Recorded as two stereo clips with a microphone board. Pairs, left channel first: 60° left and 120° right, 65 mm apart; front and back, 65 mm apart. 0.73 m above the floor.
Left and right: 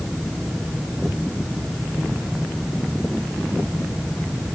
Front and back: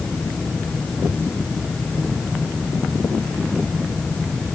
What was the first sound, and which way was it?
Only background noise.